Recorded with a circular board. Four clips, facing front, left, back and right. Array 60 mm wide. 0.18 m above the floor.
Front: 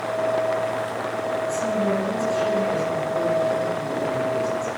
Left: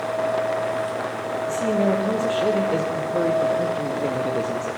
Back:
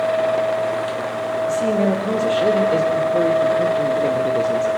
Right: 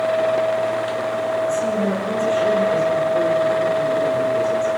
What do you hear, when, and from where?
1.5 s a man speaking: 155° left, 5 m